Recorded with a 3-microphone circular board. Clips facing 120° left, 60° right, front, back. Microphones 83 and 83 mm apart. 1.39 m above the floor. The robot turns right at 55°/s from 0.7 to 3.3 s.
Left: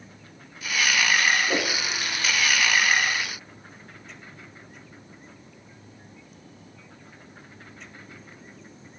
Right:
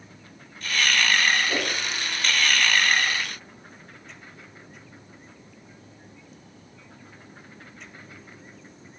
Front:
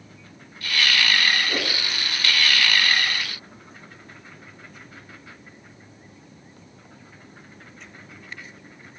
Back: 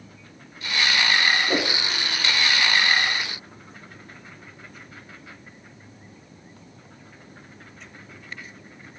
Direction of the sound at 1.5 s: 170° left.